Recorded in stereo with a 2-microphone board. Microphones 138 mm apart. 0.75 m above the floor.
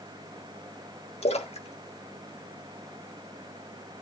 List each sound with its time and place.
1.2 s a splash: 50° left (ahead or behind), 1.4 m